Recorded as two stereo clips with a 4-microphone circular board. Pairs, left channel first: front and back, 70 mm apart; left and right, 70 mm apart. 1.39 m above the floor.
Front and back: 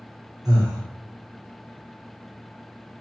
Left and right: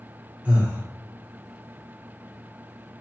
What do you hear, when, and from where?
0.5 s breathing: 160° right, 0.7 m